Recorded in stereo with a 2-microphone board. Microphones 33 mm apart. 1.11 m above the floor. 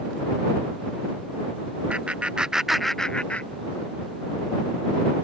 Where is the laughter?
45° right (ahead or behind); by 4.0 s 60° left (ahead or behind).